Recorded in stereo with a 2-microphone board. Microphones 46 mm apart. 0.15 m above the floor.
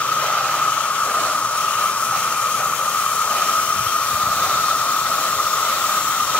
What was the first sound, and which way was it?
An insect, 30° left (ahead or behind).